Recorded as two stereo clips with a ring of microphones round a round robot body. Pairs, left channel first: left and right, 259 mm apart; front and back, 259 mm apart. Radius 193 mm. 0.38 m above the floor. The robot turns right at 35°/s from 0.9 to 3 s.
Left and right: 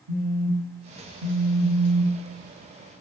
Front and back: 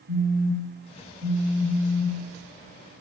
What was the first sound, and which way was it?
A phone buzzing, 90° right.